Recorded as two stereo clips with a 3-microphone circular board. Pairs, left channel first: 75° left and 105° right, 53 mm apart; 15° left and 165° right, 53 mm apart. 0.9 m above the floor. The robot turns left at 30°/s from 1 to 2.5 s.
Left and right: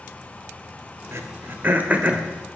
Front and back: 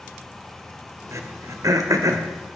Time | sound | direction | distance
1.1 | throat clearing | 140° right | 1.7 m